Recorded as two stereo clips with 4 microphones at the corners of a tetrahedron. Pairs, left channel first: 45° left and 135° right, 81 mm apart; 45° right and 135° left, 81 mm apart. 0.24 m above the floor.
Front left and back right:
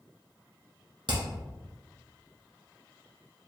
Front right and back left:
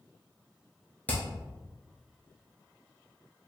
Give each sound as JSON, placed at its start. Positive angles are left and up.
{"t": 1.1, "sound": "hammering", "azimuth_deg": -115, "distance_m": 1.4}